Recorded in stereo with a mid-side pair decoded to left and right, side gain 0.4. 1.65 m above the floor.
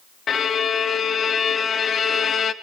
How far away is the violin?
About 1.5 m.